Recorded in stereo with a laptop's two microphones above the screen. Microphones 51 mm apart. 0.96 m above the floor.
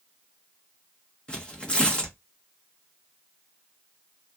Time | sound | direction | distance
1.3 | tearing paper | 20° left (ahead or behind) | 1.1 m